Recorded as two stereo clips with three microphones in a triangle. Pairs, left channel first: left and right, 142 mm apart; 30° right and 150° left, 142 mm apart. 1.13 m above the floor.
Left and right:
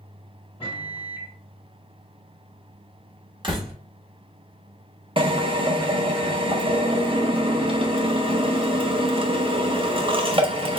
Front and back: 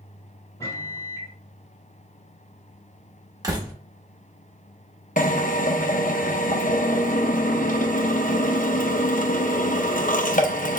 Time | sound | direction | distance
0.6 | a microwave | 35° left | 2 m
3.4 | a door slam | 145° right | 1.2 m
5.2 | a drill | 40° right | 0.9 m